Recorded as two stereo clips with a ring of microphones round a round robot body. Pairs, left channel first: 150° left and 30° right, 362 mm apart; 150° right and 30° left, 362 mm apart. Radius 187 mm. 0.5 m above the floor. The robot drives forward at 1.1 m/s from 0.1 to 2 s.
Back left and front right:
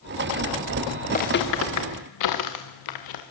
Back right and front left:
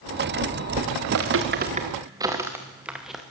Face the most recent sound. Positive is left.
turn(degrees=120)